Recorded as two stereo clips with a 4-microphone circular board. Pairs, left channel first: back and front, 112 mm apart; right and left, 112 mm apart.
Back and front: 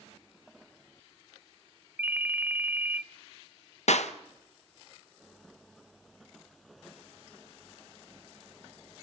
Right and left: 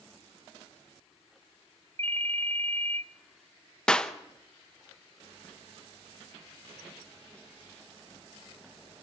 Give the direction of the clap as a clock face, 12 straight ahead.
6 o'clock.